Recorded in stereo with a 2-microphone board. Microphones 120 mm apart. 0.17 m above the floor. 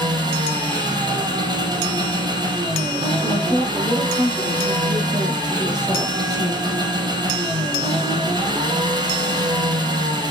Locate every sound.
0.0 s an engine running: 35° right (ahead or behind), 4 m
3.2 s a woman speaking: 25° left (ahead or behind), 5 m